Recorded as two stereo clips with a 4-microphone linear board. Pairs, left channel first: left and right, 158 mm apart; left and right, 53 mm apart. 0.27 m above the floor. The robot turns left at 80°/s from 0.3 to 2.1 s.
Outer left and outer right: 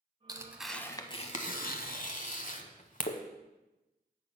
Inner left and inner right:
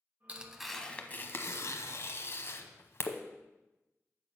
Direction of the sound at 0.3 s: 25° right (ahead or behind).